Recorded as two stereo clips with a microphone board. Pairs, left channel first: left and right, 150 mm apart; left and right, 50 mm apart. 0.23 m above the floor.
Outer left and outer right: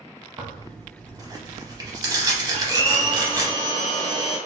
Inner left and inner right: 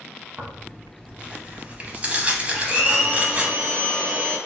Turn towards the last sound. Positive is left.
turn(degrees=-30)  # may be behind; listen again after turning